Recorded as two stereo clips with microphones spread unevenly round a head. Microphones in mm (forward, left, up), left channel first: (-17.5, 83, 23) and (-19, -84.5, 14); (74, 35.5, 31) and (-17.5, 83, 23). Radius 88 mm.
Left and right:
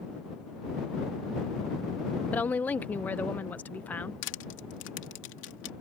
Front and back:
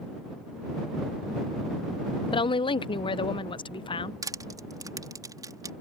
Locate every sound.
2.3 s a woman speaking: 10° left
4.2 s crushing: 100° left